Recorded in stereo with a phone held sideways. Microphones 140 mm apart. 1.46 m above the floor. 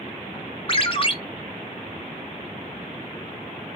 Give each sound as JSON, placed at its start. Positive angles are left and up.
{"t": 0.7, "sound": "a ringtone", "side_deg": 40, "distance_m": 0.9}